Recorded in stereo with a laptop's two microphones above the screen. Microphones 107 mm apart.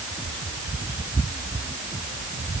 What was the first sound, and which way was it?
Only background noise.